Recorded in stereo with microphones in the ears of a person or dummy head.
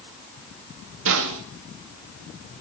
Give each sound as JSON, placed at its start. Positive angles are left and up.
{"t": 1.1, "sound": "a snare drum", "side_deg": -70, "distance_m": 2.0}